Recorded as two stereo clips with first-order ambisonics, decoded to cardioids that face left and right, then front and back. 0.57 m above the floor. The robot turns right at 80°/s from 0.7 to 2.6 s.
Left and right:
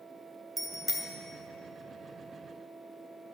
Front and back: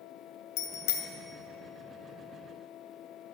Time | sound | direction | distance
0.6 | a bicycle bell | 10° right | 2 m